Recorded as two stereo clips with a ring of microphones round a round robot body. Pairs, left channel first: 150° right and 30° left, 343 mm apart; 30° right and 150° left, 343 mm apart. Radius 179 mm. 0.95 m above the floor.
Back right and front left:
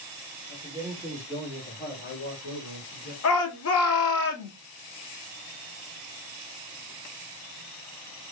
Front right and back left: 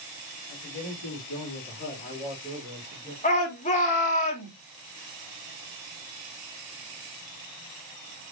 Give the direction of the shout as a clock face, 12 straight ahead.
3 o'clock.